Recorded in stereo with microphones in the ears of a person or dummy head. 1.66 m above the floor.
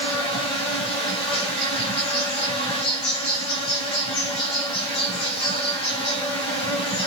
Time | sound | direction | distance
0.0 | an insect | 30° left (ahead or behind) | 4.5 m